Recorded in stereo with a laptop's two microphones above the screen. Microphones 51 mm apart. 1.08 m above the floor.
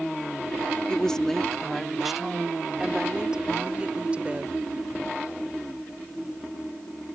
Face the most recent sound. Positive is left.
turn(degrees=-25)  # may be behind; listen again after turning